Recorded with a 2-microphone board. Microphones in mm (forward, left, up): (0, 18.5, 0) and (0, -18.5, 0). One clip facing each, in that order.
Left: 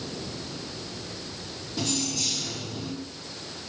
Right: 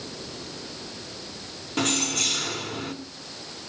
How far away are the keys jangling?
About 1.9 m.